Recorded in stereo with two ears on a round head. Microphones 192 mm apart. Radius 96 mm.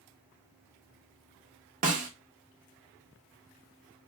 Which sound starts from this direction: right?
A snare drum, at 1.8 s.